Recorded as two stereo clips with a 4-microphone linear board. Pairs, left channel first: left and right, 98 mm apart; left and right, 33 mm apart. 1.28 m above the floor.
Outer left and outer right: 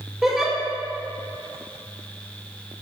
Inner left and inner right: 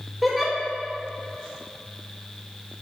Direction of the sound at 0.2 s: 5° right (ahead or behind).